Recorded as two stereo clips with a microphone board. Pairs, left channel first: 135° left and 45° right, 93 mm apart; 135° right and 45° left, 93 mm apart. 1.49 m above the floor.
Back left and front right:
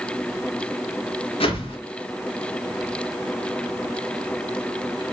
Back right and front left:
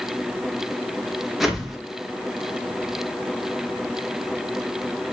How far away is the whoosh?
About 2.0 m.